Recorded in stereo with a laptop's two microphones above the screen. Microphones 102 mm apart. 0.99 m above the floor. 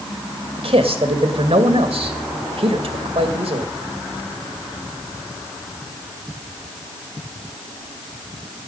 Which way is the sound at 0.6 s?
70° right (ahead or behind).